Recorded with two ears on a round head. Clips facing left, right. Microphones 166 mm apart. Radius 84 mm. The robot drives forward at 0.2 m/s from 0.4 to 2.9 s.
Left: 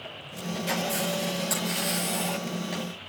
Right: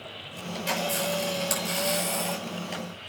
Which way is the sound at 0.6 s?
35° right (ahead or behind).